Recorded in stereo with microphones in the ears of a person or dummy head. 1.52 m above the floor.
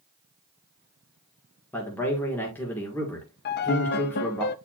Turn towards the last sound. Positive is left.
turn(degrees=50)  # may be behind; listen again after turning